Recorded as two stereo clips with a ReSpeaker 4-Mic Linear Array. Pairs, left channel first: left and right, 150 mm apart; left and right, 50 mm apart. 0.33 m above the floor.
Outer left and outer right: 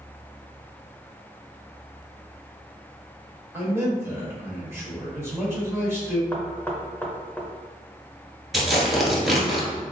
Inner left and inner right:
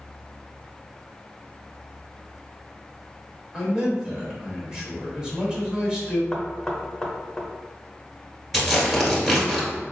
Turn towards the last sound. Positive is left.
turn(degrees=0)  # may be behind; listen again after turning